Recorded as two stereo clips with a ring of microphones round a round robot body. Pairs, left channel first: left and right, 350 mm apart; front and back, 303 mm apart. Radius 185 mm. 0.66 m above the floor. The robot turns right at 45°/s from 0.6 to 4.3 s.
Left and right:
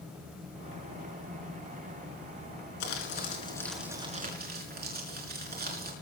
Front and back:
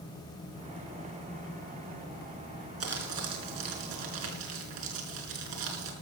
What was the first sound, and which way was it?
Crumpling, 135° left.